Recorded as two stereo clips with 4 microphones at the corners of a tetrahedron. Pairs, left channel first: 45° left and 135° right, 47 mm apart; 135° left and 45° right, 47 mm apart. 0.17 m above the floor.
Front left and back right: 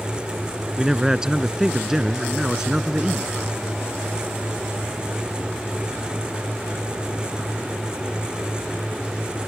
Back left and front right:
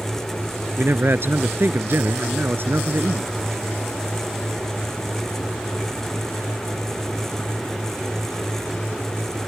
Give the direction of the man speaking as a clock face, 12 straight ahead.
2 o'clock.